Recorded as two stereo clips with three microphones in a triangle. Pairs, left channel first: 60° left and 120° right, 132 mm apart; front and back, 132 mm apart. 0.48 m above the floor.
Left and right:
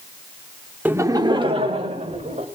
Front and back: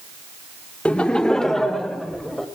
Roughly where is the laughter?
Ahead right.